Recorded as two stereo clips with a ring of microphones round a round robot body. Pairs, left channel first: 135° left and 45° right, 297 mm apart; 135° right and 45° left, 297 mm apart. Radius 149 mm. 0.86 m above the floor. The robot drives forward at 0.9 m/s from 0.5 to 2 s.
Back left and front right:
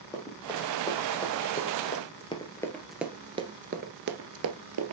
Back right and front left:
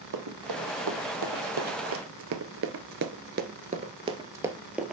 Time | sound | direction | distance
0.1 | running footsteps | 60° left | 2.5 m